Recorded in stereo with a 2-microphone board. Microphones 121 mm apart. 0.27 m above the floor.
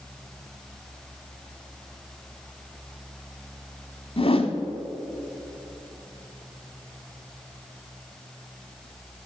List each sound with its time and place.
4.2 s a whoosh: 50° left (ahead or behind), 0.7 m